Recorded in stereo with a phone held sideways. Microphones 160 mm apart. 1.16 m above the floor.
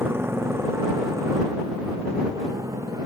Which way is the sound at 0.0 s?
15° right (ahead or behind).